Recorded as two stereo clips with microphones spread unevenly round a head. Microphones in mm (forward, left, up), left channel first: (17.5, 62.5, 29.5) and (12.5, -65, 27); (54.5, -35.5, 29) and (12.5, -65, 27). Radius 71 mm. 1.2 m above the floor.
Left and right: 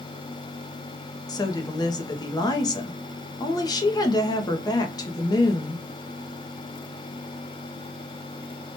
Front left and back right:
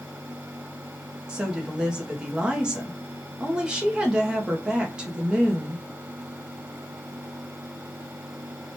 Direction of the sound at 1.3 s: 140° left.